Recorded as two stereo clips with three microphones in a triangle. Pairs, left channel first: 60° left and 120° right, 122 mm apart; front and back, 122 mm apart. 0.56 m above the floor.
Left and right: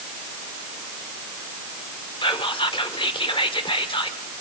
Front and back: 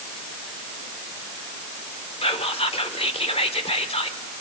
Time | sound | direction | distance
2.2 | whispering | 25° left | 1.4 m